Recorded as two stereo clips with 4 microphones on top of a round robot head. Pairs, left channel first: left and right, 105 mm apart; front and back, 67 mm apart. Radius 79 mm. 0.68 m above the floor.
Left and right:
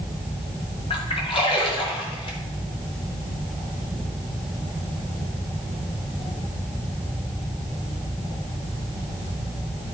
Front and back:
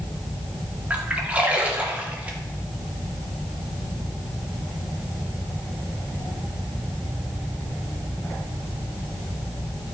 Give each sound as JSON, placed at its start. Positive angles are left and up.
{"t": 0.9, "sound": "a splash", "azimuth_deg": 115, "distance_m": 2.0}